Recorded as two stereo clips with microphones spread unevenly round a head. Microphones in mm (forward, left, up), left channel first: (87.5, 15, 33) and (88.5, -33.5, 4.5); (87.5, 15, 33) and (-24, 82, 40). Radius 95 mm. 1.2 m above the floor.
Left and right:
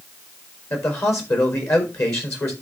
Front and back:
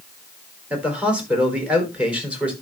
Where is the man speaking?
70° left, 4 m.